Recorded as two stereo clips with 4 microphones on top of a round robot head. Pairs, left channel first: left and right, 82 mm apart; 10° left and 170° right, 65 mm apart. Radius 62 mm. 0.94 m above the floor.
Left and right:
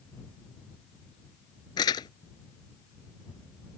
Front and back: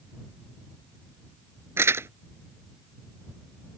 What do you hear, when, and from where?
1.8 s crumpling: 140° left